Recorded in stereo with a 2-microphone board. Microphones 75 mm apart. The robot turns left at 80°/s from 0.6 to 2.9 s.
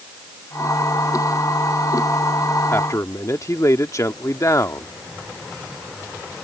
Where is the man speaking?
30° left (ahead or behind); by 4.9 s 45° left (ahead or behind).